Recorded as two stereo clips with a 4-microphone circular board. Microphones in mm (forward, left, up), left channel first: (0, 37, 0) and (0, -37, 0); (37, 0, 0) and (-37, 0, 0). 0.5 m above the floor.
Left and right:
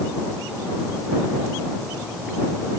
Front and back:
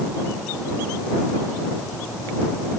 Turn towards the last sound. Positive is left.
No sound to turn to.